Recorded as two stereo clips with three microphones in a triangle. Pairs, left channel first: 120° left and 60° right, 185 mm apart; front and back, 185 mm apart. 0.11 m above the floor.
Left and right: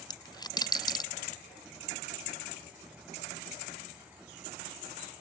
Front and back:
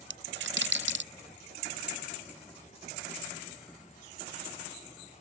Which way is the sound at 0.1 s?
170° right.